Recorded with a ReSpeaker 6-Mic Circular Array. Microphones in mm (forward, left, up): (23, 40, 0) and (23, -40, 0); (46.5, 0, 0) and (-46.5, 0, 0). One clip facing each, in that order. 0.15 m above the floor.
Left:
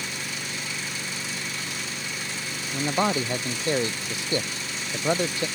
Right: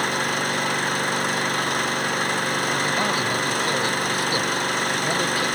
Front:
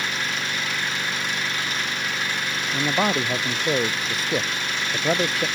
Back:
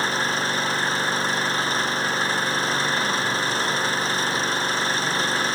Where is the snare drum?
No snare drum in this recording.